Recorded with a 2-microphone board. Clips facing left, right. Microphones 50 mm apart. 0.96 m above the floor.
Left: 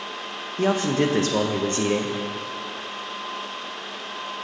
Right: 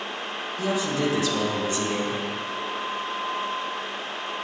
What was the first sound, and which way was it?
A man speaking, 50° left (ahead or behind).